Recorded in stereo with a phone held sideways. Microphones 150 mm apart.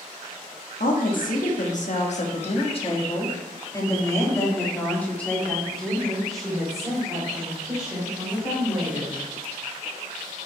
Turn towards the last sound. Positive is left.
turn(degrees=-10)  # may be behind; listen again after turning